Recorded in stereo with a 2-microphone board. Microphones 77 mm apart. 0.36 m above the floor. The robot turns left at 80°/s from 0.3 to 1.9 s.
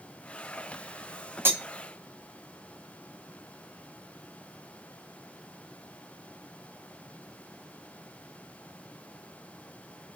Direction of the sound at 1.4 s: 30° right (ahead or behind).